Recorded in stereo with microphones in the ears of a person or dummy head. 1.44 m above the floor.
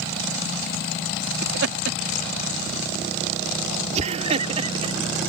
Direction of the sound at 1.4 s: 75° right (ahead or behind).